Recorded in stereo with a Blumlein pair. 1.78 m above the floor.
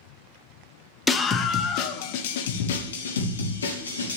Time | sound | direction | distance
1.1 | a scream | 10° left | 1.2 m